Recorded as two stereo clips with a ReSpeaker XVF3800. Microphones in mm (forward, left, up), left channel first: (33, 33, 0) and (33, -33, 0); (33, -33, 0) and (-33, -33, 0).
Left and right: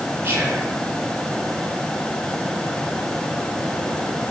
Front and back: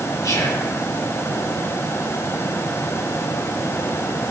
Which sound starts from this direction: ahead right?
Whispering, at 0.2 s.